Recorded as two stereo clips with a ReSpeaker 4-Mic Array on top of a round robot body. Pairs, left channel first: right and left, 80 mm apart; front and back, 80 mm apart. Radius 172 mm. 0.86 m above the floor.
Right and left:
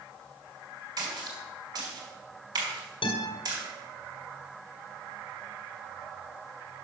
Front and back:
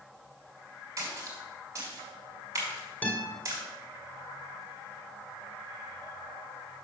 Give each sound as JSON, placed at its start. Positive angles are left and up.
{"t": 1.0, "sound": "a splash", "azimuth_deg": 125, "distance_m": 3.5}
{"t": 3.0, "sound": "a guitar", "azimuth_deg": -75, "distance_m": 2.0}